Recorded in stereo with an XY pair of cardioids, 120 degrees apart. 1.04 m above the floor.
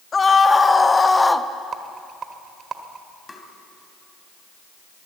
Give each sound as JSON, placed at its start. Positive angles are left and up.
{"t": 0.1, "sound": "a scream", "azimuth_deg": 30, "distance_m": 1.5}
{"t": 1.7, "sound": "a rattle", "azimuth_deg": -45, "distance_m": 1.5}
{"t": 3.3, "sound": "tapping", "azimuth_deg": 15, "distance_m": 2.5}